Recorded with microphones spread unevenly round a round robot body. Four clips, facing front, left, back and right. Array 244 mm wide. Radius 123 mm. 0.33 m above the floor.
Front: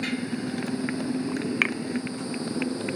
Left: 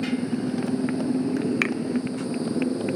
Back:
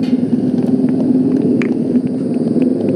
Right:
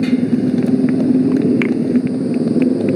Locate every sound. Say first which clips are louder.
0.0 s a motorcycle: right 11 dB, back 16 dB; 140° right
1.6 s a finger snap: right 10 dB, back 13 dB; 160° right